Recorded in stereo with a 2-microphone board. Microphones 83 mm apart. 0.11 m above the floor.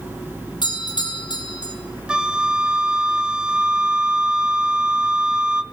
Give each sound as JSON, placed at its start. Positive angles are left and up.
{"t": 0.6, "sound": "a doorbell", "side_deg": 60, "distance_m": 5.5}
{"t": 2.1, "sound": "a flute", "side_deg": -10, "distance_m": 1.4}